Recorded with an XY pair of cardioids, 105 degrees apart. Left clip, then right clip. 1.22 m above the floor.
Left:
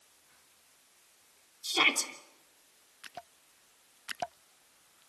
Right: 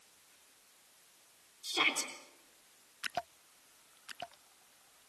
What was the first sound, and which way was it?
A shout, 35° left.